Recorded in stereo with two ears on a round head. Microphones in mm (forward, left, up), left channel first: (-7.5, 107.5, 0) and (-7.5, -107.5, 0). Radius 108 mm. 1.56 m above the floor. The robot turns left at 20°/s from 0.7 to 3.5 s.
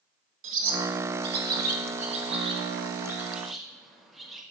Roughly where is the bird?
Right.